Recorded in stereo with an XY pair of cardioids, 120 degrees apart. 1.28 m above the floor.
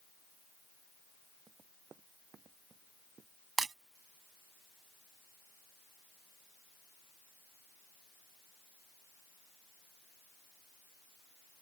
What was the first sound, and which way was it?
Running footsteps, 35° right.